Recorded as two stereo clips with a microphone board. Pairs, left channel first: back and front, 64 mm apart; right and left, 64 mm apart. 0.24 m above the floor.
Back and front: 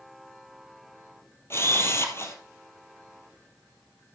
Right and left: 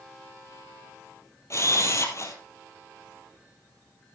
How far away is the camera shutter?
About 2.5 m.